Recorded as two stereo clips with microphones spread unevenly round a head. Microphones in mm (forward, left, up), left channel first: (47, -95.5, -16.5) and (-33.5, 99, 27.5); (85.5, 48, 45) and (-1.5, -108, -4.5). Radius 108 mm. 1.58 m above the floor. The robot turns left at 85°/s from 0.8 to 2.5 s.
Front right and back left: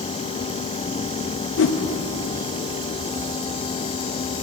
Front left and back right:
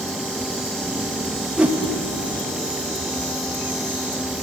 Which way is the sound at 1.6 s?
35° right.